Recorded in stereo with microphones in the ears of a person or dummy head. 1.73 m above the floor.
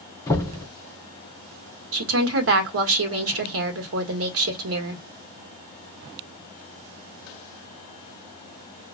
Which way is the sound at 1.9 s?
65° right (ahead or behind).